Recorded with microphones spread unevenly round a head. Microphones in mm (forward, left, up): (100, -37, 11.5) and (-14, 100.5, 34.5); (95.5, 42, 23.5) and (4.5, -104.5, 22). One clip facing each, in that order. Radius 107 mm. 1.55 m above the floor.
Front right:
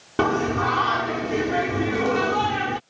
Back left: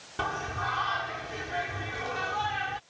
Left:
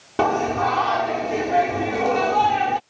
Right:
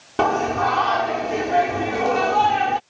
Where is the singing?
30° right.